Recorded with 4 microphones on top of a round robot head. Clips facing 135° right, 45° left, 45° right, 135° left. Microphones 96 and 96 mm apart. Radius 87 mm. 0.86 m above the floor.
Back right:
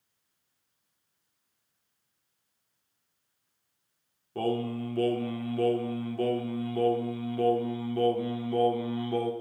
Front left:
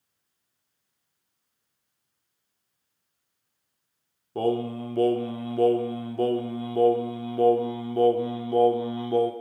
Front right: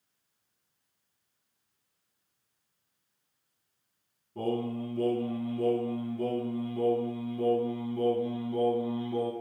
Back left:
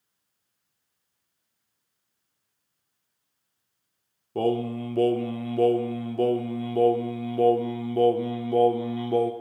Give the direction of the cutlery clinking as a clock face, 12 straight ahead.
No cutlery clinking in this recording.